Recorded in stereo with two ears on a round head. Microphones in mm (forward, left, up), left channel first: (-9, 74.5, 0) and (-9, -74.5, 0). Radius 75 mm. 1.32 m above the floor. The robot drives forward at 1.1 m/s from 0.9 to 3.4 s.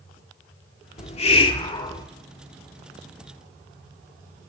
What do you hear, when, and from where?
1.0 s a hiss: 45° left (ahead or behind), 1.3 m; by 2.1 s 25° left (ahead or behind), 2 m